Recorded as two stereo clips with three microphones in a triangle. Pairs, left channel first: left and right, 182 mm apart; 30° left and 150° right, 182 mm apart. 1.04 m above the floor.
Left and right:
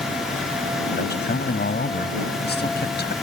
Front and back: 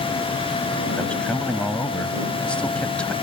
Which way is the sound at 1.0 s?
115° left.